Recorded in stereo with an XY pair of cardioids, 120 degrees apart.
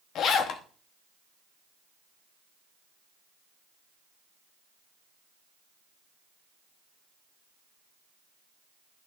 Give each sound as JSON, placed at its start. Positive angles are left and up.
{"t": 0.1, "sound": "a zipper", "azimuth_deg": 65, "distance_m": 0.8}